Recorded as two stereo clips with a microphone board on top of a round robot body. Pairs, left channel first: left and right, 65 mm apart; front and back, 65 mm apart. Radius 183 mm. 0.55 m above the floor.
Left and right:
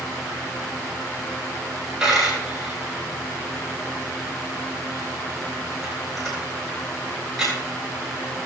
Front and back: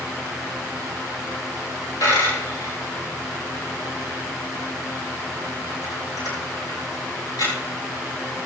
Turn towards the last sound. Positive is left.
turn(degrees=-5)